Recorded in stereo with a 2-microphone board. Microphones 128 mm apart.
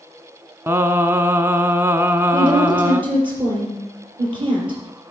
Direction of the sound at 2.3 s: 40° right (ahead or behind).